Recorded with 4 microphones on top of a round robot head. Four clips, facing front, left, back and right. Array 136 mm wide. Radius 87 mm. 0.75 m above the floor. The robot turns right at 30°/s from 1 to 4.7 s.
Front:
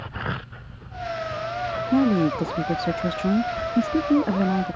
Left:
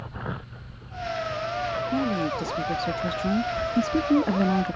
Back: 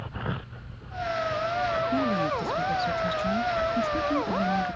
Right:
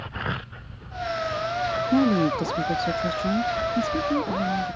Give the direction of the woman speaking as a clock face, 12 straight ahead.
1 o'clock.